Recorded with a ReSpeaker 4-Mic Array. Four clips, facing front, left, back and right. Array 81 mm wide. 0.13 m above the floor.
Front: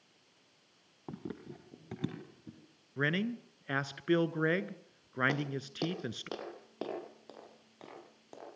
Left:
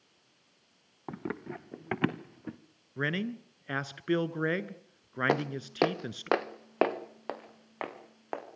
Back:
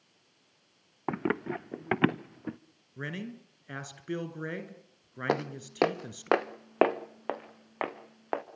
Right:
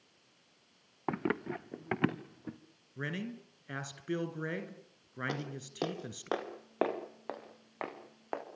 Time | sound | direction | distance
1.1 | running footsteps | 155° right | 0.7 m
3.0 | a man speaking | 45° left | 1.8 m
5.3 | footsteps | 130° left | 1.6 m